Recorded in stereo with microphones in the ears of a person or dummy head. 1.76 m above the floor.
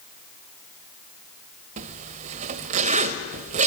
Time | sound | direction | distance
1.8 | a zipper | 40° right (ahead or behind) | 2.5 m